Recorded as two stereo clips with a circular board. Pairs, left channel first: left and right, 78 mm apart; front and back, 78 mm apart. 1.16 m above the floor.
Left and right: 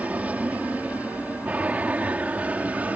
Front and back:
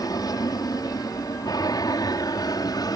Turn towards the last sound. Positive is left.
turn(degrees=-20)